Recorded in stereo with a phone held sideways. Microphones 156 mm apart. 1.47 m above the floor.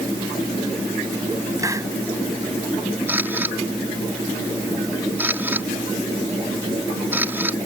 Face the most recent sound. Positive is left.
turn(degrees=-15)  # may be behind; listen again after turning